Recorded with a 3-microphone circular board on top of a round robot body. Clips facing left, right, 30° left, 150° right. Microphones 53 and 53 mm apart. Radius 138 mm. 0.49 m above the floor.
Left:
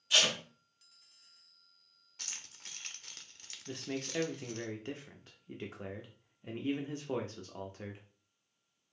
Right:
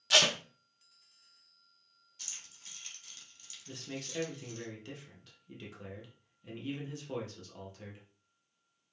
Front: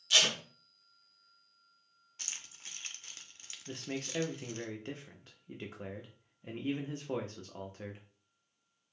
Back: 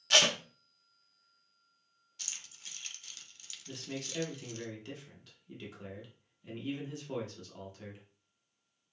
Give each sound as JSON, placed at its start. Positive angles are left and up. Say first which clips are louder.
{"t": 0.1, "sound": "tape being pulled", "louder": "right 2 dB, back 2 dB", "azimuth_deg": -110, "distance_m": 0.7}
{"t": 2.2, "sound": "keys jangling", "louder": "left 3 dB, front 1 dB", "azimuth_deg": 80, "distance_m": 0.8}
{"t": 3.7, "sound": "a man speaking", "louder": "left 4 dB, front 2 dB", "azimuth_deg": 60, "distance_m": 0.8}